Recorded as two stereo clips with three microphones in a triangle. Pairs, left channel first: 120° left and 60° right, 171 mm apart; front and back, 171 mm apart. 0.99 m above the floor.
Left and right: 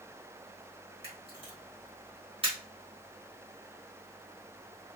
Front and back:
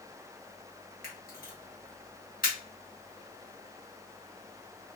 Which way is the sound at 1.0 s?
10° right.